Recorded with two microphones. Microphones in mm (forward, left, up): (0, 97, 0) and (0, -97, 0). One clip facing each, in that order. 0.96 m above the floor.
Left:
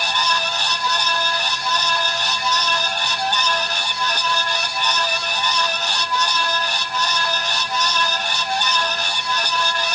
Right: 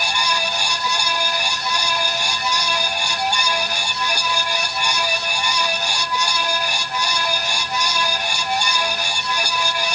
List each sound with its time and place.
Only background noise.